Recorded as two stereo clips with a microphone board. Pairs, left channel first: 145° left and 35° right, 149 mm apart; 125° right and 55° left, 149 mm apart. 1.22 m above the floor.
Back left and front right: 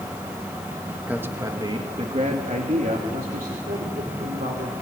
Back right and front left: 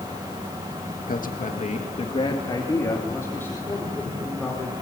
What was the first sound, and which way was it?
A man speaking, 115° right.